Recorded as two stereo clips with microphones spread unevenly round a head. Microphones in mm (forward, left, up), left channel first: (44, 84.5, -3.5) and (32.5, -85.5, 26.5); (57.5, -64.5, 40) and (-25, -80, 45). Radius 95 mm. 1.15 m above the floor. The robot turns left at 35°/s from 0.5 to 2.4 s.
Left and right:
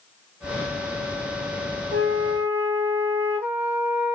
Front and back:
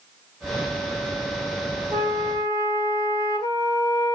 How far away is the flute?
About 1.3 m.